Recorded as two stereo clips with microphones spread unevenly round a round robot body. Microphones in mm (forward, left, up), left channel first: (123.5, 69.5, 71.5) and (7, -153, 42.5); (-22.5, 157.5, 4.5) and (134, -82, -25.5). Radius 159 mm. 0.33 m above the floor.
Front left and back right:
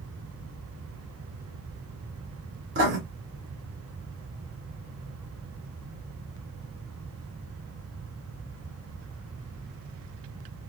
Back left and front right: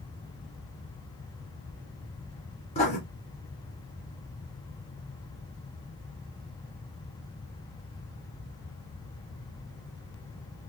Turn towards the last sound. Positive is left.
turn(degrees=-165)